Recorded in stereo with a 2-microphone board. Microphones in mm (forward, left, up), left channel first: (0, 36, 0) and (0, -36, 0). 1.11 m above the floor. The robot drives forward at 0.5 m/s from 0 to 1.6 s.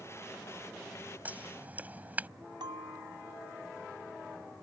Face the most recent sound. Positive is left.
turn(degrees=-85)